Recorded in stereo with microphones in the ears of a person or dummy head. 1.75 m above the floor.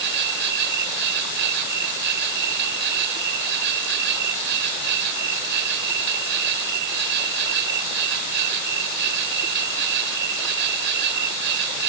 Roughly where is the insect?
Right.